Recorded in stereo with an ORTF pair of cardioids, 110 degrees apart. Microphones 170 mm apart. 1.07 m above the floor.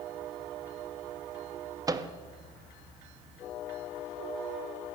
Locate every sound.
1.9 s a microwave: 20° right, 0.9 m